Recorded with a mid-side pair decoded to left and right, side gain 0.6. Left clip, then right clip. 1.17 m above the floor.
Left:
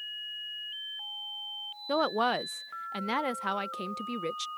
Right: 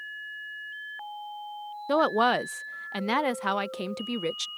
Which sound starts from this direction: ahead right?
A woman speaking, at 1.9 s.